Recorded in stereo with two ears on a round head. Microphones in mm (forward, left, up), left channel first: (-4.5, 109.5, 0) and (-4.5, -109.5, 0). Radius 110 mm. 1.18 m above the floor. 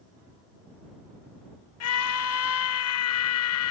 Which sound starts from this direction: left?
A scream, at 1.8 s.